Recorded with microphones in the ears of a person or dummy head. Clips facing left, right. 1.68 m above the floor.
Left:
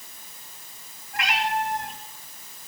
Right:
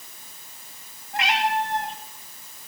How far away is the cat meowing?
About 3 m.